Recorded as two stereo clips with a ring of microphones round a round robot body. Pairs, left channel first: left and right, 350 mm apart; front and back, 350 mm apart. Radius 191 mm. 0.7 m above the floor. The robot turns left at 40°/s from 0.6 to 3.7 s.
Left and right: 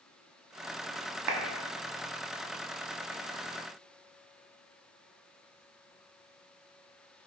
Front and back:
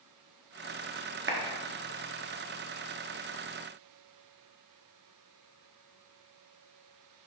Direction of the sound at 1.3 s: 125° right.